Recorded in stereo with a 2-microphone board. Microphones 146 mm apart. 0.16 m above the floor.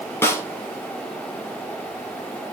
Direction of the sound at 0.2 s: 20° left (ahead or behind).